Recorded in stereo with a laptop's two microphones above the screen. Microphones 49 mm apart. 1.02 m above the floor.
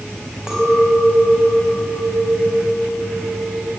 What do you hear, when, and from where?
0.5 s a clink: 10° right (ahead or behind), 5 m